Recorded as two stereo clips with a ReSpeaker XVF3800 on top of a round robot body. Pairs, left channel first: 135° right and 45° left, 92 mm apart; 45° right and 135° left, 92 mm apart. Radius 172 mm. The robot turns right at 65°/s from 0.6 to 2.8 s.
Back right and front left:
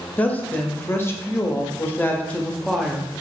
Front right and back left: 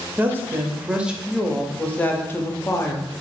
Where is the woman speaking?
175° left, 0.8 m; by 3.1 s 45° right, 0.8 m.